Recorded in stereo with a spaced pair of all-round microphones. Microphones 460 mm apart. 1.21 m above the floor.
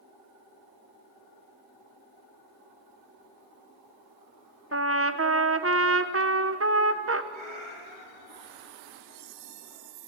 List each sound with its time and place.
4.7 s a trumpet: 30° right (ahead or behind), 0.8 m
7.3 s a cat meowing: 75° right (ahead or behind), 3.5 m